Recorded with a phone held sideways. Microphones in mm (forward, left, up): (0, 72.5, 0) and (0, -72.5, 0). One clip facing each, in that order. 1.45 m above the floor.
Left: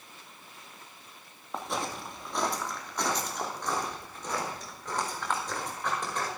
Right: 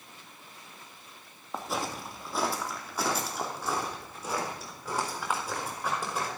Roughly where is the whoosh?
No whoosh in this recording.